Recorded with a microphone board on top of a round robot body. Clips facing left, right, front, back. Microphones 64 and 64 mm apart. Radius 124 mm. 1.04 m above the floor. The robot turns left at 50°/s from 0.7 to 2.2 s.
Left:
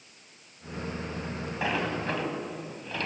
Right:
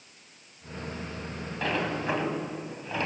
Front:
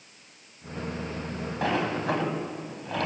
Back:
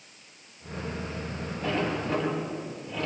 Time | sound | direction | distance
1.6 | a sliding door | 15° left | 4 m